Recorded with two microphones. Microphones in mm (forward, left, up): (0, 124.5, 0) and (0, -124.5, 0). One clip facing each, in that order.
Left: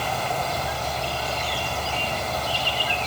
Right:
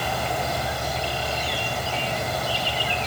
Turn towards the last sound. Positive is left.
No sound to turn to.